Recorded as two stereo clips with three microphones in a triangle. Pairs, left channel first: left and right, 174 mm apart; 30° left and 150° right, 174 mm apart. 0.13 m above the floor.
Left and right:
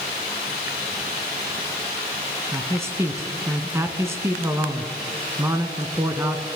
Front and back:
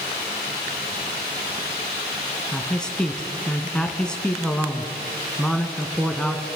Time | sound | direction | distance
2.5 | a man speaking | 45° right | 1.4 m